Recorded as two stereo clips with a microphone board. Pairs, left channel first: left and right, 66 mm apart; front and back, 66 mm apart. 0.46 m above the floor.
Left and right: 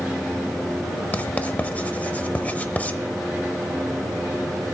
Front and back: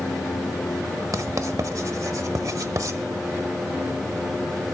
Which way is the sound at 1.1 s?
155° left.